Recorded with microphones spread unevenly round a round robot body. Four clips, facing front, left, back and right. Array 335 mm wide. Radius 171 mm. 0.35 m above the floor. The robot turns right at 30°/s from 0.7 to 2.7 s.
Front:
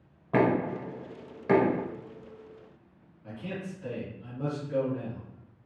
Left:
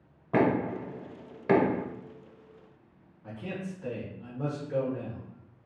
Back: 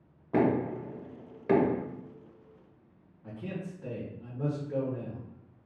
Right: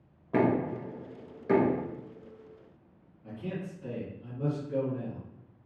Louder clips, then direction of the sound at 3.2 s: Even, front 1 dB; 145° left.